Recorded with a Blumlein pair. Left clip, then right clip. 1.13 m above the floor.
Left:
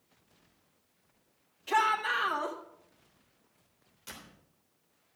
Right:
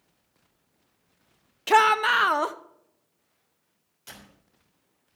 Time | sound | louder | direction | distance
1.7 | a shout | right 9 dB | 35° right | 0.9 m
4.1 | a door slam | right 1 dB | 5° right | 3 m